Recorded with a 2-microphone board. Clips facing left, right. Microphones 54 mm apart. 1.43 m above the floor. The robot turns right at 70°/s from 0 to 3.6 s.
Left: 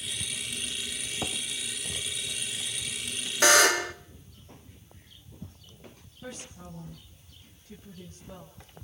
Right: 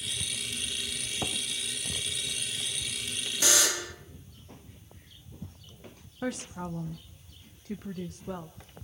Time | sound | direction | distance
3.4 | a buzzer | 55° left (ahead or behind) | 1.2 m
6.2 | a woman speaking | 80° right | 1.5 m